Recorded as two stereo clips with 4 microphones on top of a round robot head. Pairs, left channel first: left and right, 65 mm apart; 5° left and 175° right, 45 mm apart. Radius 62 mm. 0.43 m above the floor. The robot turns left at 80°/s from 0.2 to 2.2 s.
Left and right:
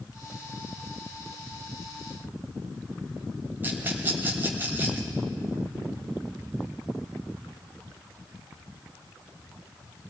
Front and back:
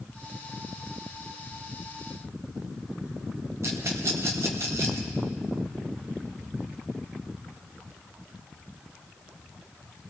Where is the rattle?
150° right, 2.5 m.